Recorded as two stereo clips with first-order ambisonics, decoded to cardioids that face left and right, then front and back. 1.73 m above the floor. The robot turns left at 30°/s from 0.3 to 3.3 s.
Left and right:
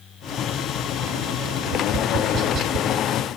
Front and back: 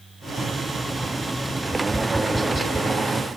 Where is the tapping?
75° right, 0.5 m; by 2.9 s 110° right, 0.5 m.